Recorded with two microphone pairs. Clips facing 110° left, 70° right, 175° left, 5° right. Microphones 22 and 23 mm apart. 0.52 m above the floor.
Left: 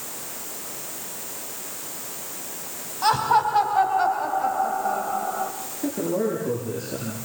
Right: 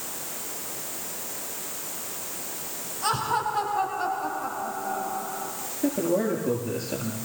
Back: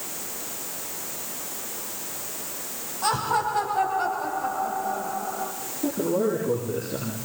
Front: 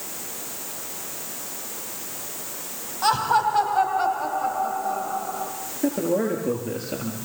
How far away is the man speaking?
About 7.5 m.